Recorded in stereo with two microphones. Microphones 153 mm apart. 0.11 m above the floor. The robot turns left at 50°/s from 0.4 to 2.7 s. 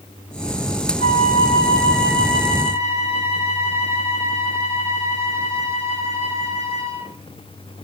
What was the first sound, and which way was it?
A flute, 130° left.